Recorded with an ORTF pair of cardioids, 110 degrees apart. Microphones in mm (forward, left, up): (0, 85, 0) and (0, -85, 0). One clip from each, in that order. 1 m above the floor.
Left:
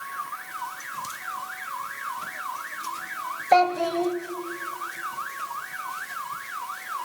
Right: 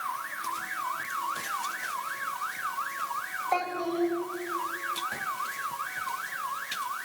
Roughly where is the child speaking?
Left.